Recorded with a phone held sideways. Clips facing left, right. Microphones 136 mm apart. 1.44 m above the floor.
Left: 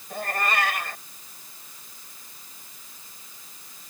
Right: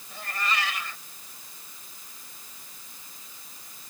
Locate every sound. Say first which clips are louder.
0.1 s a cat meowing: left 5 dB; 60° left (ahead or behind)